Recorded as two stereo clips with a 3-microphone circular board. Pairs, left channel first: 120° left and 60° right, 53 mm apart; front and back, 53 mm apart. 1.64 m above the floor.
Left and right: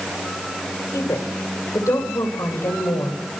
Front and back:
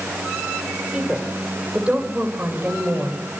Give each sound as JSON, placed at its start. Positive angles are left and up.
{"t": 0.9, "sound": "a woman speaking", "azimuth_deg": 105, "distance_m": 6.5}